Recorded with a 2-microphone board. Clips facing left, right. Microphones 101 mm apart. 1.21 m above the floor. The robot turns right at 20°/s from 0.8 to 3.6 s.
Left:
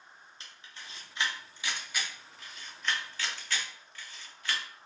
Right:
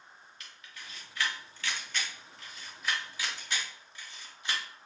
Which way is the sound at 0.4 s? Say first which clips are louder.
Even; 30° left (ahead or behind).